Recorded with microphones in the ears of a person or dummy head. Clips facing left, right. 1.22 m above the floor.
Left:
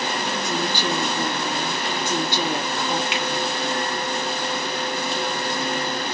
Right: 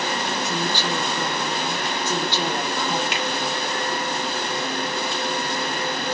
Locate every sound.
0.4 s a woman speaking: 15° left (ahead or behind), 1.6 m
3.1 s a finger snap: 35° right (ahead or behind), 2 m